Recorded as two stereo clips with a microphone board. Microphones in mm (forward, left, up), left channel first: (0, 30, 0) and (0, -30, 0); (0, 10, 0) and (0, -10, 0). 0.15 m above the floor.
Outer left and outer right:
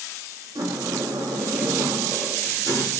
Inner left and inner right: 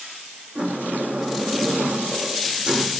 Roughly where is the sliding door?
Right.